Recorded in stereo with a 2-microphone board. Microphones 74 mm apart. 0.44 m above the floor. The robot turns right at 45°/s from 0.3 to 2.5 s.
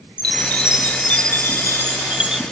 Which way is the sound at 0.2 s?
100° right.